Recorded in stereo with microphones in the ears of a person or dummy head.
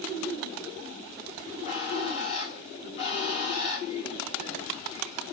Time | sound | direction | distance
1.4 | a bird | 35° left (ahead or behind) | 3.5 m